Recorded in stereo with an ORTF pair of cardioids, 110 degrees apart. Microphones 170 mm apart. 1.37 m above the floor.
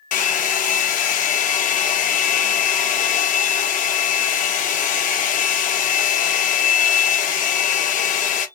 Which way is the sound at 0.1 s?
55° left.